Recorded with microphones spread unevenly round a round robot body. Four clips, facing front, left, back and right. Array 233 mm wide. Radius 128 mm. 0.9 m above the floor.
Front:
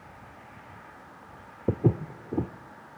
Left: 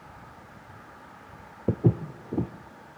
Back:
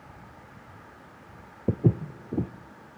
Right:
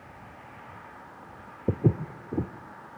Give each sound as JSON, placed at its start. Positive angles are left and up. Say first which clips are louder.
{"t": 1.7, "sound": "footsteps", "louder": "left 1 dB, even", "azimuth_deg": 25, "distance_m": 1.0}